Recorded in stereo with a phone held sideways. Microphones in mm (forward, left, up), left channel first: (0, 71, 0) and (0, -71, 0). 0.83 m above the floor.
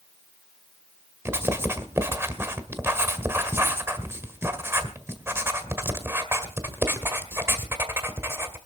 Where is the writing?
20° right (ahead or behind), 1.7 m.